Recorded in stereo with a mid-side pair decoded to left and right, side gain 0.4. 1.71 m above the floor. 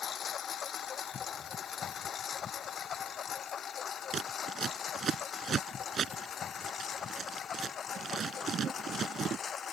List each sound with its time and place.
0.0 s a lawn mower: 60° left; by 9.7 s 55° left
4.1 s scissors: 55° right